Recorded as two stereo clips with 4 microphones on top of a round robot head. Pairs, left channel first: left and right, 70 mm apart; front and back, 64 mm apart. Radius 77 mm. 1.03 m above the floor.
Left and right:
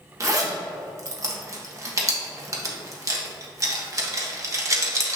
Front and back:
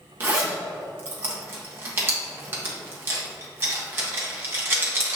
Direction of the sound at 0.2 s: 130° right.